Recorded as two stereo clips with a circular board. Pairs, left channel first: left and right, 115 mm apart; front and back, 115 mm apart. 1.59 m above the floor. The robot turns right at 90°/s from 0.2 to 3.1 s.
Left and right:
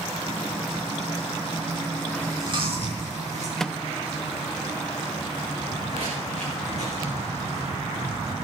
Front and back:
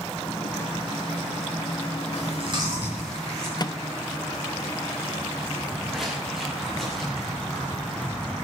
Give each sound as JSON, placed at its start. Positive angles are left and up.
{"t": 2.1, "sound": "chewing", "azimuth_deg": -170, "distance_m": 6.0}
{"t": 3.6, "sound": "a microwave", "azimuth_deg": 5, "distance_m": 0.5}
{"t": 5.6, "sound": "footsteps", "azimuth_deg": -95, "distance_m": 8.0}